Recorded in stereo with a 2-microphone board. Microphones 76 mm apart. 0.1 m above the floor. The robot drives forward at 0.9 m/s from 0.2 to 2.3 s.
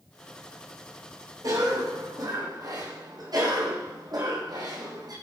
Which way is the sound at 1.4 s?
55° right (ahead or behind).